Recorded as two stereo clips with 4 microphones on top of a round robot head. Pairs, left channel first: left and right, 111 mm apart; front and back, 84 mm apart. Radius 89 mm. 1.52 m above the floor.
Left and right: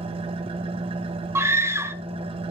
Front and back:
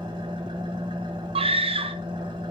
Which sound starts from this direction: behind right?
An engine running, at 0.0 s.